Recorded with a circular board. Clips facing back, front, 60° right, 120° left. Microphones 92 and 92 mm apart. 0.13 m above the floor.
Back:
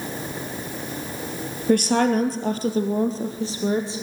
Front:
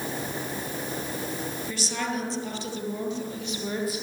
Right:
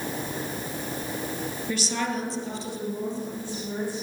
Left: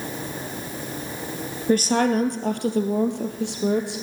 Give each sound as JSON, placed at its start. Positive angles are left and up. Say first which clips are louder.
{"t": 1.7, "sound": "a woman speaking", "louder": "back 15 dB, left 11 dB", "azimuth_deg": 160, "distance_m": 2.5}